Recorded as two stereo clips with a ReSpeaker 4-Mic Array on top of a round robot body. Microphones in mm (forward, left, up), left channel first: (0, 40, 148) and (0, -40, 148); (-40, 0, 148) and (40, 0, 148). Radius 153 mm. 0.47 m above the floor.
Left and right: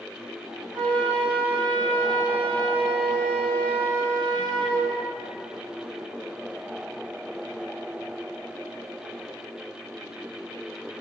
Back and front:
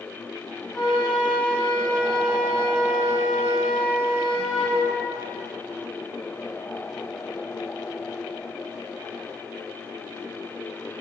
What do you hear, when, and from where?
0.7 s a flute: 85° right, 1.8 m